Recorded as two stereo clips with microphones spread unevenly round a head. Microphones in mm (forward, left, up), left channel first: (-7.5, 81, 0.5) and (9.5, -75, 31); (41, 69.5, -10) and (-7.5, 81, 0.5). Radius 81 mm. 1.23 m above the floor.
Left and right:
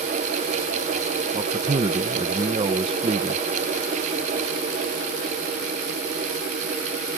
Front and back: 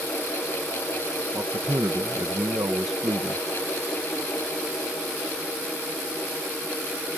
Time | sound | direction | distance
1.3 | a man speaking | 145° right | ?